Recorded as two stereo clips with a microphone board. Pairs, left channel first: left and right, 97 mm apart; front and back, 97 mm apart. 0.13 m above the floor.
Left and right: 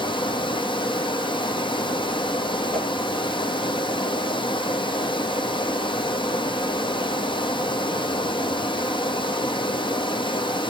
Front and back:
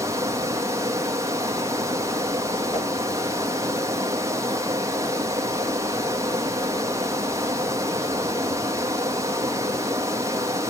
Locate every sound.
0.0 s running water: 120° left, 1.3 m
2.7 s a whoosh: 10° left, 3.5 m